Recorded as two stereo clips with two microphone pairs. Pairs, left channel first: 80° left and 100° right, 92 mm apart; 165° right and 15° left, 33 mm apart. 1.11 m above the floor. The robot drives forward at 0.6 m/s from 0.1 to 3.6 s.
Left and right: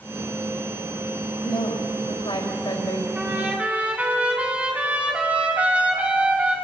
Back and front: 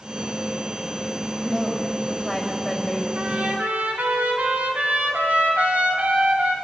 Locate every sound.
1.4 s a woman speaking: 100° left, 5 m; by 3.0 s 115° left, 5.5 m
3.1 s a trumpet: 20° right, 3.5 m; by 6.5 s 25° right, 3.5 m